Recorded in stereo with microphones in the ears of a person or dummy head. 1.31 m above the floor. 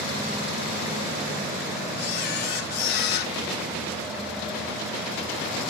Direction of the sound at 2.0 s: 55° left (ahead or behind).